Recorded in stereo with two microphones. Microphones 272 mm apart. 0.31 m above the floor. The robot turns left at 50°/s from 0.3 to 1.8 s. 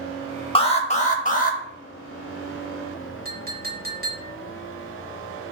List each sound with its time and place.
0.6 s an alarm: 135° left, 0.6 m; by 1.6 s 85° left, 0.6 m
3.2 s a clink: 35° right (ahead or behind), 0.9 m